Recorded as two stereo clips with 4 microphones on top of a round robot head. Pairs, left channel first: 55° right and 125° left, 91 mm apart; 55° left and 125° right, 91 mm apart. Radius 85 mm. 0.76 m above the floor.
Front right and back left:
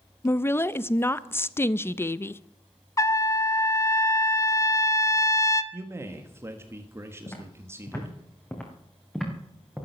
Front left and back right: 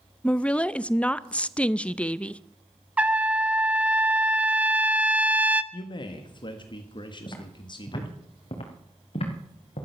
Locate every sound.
0.2 s a woman speaking: 15° right, 0.5 m
3.0 s a trumpet: 60° right, 1.0 m
5.7 s a man speaking: 70° left, 1.5 m
7.3 s footsteps: 5° left, 4.5 m; by 9.9 s 40° left, 4 m